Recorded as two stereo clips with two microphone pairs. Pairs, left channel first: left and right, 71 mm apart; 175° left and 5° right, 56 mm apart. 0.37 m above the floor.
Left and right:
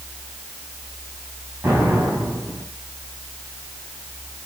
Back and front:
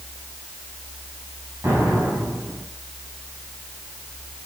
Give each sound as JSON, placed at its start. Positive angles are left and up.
{"t": 1.6, "sound": "an explosion", "azimuth_deg": -30, "distance_m": 6.5}